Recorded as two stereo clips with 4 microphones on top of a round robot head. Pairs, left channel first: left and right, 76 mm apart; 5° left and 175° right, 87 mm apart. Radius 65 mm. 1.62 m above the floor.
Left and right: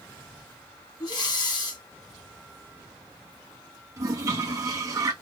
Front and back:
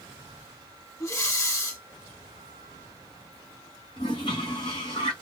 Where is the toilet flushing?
45° right, 0.9 m.